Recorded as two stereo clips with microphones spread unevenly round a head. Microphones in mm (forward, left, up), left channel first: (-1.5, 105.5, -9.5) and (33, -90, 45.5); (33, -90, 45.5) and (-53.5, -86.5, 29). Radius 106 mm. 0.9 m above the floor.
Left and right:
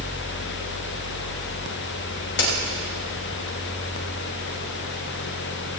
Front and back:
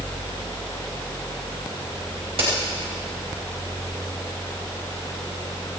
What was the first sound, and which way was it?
A crack, 140° left.